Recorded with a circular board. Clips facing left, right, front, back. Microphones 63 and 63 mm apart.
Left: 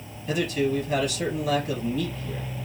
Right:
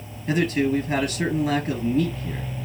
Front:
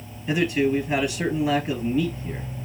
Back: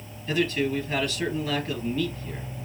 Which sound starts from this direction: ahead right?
A man speaking, at 0.3 s.